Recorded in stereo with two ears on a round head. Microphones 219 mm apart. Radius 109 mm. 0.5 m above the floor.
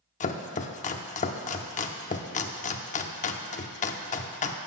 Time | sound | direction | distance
0.2 | chopping | 30° left (ahead or behind) | 0.6 m